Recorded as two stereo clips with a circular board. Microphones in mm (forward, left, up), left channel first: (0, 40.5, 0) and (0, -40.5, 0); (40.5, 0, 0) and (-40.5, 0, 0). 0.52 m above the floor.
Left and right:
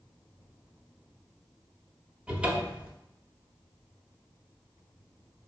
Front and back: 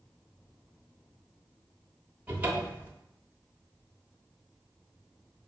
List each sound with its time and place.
2.3 s a cupboard door: 145° right, 1.0 m